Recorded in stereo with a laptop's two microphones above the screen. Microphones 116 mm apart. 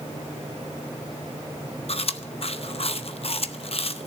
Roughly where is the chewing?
Left.